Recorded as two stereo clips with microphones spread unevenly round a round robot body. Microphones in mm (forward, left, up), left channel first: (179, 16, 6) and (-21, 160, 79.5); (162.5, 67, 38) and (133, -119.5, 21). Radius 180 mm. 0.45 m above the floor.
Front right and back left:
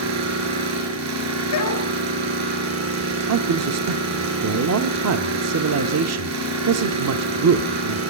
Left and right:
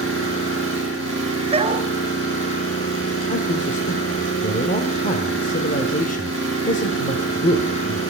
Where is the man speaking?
130° left, 1.0 m.